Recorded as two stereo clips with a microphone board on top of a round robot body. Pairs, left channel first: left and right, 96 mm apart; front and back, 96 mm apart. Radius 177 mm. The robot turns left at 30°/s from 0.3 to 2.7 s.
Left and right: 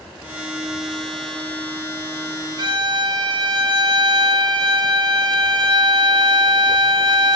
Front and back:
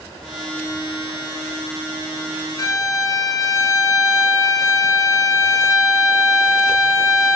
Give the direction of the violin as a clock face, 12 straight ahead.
2 o'clock.